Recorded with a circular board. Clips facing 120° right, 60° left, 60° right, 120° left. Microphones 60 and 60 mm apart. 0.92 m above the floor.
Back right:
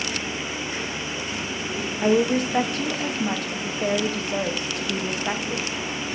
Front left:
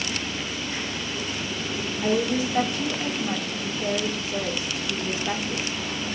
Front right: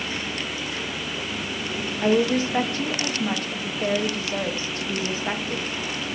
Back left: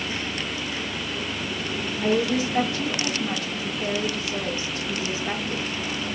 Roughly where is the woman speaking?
Right.